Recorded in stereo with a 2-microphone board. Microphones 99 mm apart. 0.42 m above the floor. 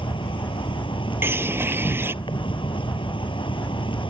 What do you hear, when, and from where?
0.0 s an insect: 55° left (ahead or behind)
1.2 s a bird: 20° right (ahead or behind)